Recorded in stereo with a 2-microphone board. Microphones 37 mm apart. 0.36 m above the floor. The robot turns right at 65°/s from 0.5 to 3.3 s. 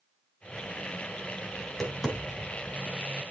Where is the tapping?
15° left (ahead or behind), 2.5 m; by 2.7 s 50° right (ahead or behind), 2.5 m.